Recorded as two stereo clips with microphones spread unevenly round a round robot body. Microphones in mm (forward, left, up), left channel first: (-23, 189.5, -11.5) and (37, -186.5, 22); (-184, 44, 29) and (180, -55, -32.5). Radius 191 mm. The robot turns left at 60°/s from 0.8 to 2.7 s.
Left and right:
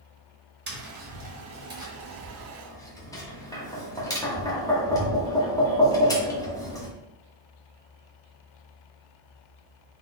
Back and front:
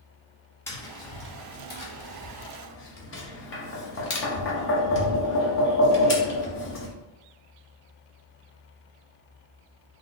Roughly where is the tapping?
Right.